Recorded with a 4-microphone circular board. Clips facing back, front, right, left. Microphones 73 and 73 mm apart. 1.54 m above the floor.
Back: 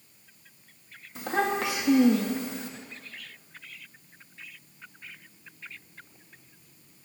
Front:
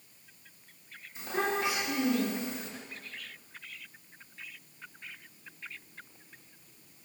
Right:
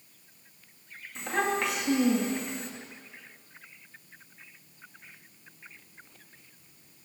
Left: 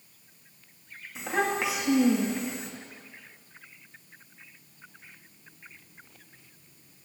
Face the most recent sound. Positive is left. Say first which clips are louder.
# back 4 dB, left 1 dB
turn(degrees=175)